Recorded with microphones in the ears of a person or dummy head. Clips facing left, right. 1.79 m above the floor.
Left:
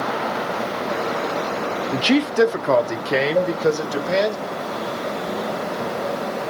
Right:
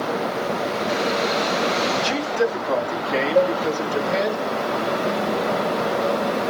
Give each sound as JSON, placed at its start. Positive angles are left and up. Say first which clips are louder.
{"t": 1.9, "sound": "a man speaking", "louder": "left 5 dB", "side_deg": 25, "distance_m": 0.5}
{"t": 3.4, "sound": "a cowbell", "louder": "right 6 dB", "side_deg": -15, "distance_m": 2.0}